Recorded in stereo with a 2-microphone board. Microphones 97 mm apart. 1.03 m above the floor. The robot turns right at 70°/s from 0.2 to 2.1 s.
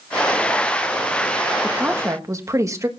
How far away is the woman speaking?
About 1.4 m.